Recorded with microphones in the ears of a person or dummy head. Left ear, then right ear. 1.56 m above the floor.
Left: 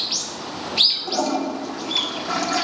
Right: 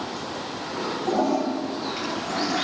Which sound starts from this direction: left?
A toilet flushing, at 1.1 s.